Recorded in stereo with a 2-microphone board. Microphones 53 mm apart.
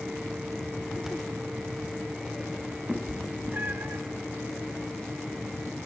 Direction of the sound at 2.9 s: 10° right (ahead or behind).